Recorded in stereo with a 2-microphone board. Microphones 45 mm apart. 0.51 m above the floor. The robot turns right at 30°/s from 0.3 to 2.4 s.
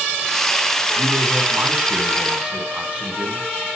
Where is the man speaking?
60° right, 4 m; by 3.5 s 15° right, 4 m.